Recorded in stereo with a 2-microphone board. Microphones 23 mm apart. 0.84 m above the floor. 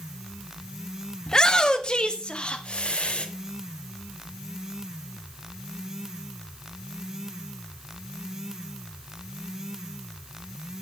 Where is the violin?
I don't hear a violin.